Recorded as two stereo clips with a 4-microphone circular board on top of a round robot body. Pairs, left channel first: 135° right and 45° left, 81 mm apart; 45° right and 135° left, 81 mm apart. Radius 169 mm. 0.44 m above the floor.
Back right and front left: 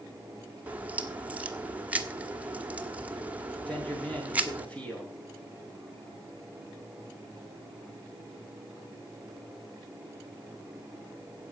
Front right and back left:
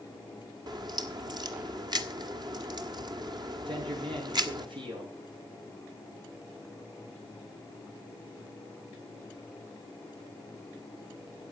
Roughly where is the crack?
Behind left.